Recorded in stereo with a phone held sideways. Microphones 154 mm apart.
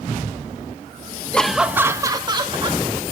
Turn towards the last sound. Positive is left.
turn(degrees=-35)  # may be behind; listen again after turning